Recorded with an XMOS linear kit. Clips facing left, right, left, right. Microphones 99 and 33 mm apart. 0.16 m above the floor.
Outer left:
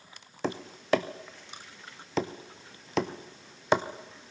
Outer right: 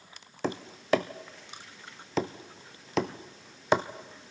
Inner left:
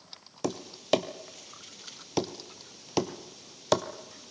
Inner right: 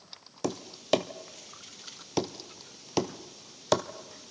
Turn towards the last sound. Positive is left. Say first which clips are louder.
# even, even
turn(degrees=0)  # may be behind; listen again after turning